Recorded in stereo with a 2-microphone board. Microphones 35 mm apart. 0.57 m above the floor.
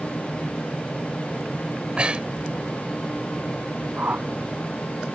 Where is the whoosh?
50° right (ahead or behind).